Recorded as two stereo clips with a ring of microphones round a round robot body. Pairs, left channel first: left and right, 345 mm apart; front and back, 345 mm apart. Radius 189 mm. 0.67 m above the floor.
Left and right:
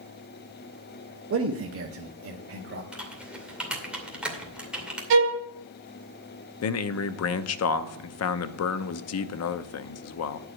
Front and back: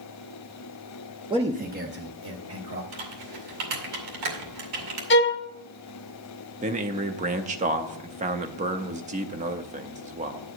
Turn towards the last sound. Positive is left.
turn(degrees=115)